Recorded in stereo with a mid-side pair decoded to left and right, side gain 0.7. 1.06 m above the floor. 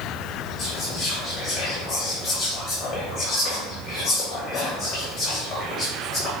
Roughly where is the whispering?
Ahead left.